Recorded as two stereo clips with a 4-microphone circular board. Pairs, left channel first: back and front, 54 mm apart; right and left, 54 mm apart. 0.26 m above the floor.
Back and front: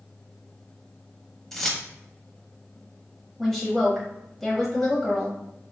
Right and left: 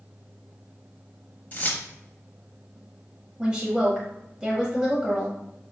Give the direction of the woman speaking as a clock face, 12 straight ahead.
9 o'clock.